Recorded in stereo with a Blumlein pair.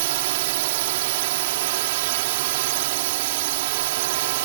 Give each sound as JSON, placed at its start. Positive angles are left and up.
{"t": 0.0, "sound": "a drone", "azimuth_deg": -50}